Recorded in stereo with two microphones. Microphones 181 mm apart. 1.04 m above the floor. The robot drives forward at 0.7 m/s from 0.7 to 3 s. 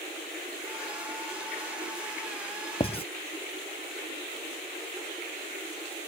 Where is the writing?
35° left (ahead or behind).